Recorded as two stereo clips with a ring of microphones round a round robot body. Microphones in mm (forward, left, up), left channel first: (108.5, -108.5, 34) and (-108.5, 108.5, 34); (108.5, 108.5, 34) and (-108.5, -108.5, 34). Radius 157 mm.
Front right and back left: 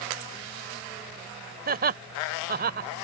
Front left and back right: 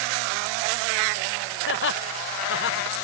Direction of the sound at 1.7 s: 80° left.